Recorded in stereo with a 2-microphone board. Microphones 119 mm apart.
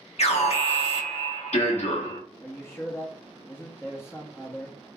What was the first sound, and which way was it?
An alarm, 65° left (ahead or behind).